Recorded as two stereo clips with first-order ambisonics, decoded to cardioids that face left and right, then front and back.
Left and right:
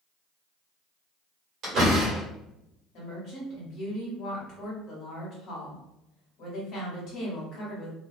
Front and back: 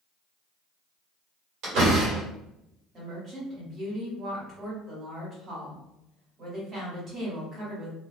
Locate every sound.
1.6 s a door slam: 145° right, 1.4 m
2.9 s a woman speaking: 120° left, 1.5 m